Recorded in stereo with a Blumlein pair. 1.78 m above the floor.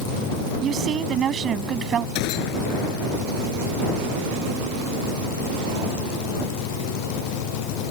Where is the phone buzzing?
I don't hear a phone buzzing.